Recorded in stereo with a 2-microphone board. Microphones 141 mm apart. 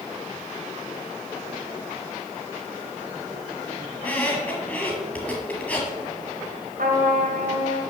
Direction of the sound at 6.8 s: 85° right.